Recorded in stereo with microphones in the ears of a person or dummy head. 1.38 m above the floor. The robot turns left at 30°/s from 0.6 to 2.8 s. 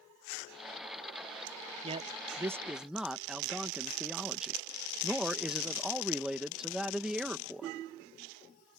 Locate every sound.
1.8 s a man speaking: 35° right (ahead or behind); by 7.8 s 5° right (ahead or behind)